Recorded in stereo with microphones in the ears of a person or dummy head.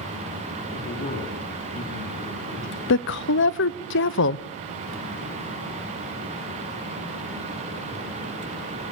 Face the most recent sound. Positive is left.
turn(degrees=65)  # may be behind; listen again after turning